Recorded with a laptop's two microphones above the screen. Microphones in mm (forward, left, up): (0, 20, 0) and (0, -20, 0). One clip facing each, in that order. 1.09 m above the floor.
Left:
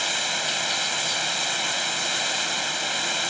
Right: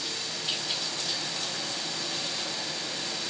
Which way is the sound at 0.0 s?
60° left (ahead or behind).